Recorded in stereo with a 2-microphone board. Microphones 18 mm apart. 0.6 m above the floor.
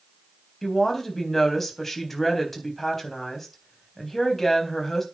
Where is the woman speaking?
10° left (ahead or behind), 4 m.